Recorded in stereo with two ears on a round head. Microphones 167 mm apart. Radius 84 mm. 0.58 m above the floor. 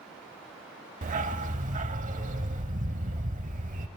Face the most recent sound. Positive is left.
turn(degrees=-45)  # may be behind; listen again after turning